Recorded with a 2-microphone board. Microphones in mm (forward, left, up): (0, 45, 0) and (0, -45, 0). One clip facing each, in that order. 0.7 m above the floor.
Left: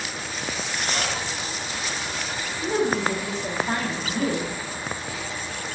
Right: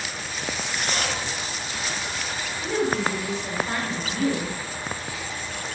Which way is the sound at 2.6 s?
35° left (ahead or behind).